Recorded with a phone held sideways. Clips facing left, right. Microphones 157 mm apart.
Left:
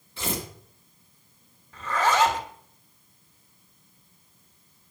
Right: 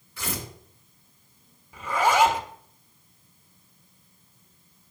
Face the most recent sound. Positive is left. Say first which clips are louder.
# right 2 dB
turn(degrees=-10)  # may be behind; listen again after turning